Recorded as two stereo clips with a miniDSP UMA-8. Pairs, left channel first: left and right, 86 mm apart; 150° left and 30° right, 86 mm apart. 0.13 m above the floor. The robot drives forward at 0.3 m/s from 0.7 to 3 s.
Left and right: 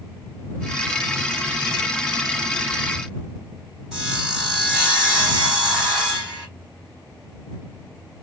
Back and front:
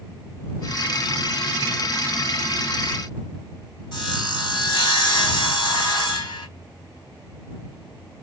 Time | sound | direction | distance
3.9 | sawing | straight behind | 2.5 m